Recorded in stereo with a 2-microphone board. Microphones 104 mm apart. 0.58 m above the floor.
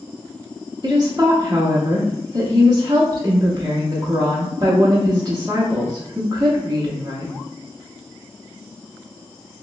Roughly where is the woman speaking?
Right.